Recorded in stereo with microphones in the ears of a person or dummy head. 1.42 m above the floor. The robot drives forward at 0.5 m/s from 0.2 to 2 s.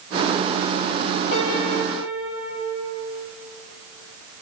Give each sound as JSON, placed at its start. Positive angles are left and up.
{"t": 1.3, "sound": "a piano", "side_deg": 60, "distance_m": 2.5}